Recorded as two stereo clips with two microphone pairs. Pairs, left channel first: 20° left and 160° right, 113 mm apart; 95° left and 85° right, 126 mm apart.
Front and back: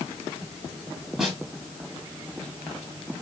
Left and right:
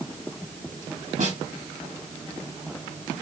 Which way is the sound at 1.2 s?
75° right.